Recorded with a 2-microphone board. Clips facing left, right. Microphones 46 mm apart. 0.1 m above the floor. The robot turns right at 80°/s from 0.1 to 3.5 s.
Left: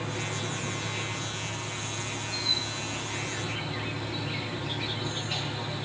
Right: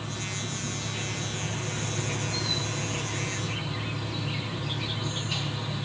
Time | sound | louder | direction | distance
0.0 | an insect | left 2 dB | 105° left | 3.5 m